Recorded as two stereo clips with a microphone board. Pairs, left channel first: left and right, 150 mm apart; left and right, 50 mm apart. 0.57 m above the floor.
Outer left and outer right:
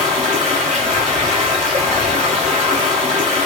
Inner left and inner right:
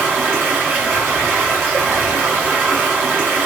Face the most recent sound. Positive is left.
turn(degrees=-50)  # may be behind; listen again after turning